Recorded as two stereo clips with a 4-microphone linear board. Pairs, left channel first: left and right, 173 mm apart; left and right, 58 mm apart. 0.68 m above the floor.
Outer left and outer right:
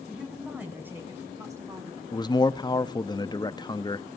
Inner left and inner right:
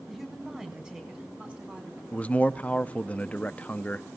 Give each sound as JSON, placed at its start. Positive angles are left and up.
{"t": 0.1, "sound": "a woman speaking", "side_deg": -5, "distance_m": 5.0}
{"t": 2.1, "sound": "a man speaking", "side_deg": 25, "distance_m": 0.5}